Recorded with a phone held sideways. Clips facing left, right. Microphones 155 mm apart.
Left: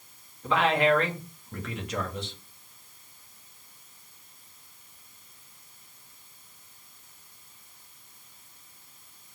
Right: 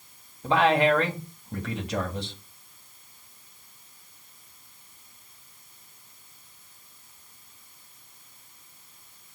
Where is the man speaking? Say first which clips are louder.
Right 2 dB; 35° right (ahead or behind), 2 m.